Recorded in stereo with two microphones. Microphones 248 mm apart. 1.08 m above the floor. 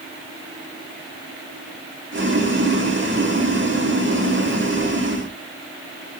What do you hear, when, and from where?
2.1 s boiling: 50° right (ahead or behind), 1.9 m